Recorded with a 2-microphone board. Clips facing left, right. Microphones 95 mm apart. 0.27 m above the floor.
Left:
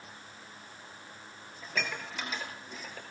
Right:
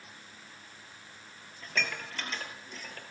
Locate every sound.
1.6 s dishes clattering: 10° left (ahead or behind), 4 m